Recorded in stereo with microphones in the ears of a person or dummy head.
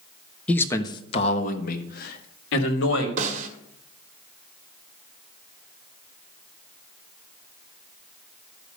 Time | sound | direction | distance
0.5 | a man speaking | 5° left (ahead or behind) | 1.1 m
3.2 | a snare drum | 50° right (ahead or behind) | 1.8 m